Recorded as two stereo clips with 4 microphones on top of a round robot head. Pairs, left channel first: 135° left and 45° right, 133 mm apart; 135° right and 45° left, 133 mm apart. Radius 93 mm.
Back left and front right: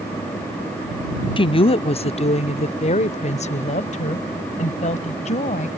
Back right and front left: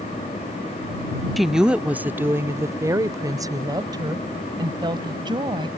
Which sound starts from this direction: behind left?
A woman speaking, at 1.4 s.